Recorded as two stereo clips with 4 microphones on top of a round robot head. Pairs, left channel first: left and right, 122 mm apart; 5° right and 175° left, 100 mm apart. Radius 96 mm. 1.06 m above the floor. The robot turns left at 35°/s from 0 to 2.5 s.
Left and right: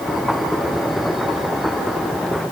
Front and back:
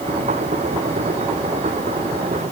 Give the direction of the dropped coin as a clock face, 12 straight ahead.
I don't hear a dropped coin.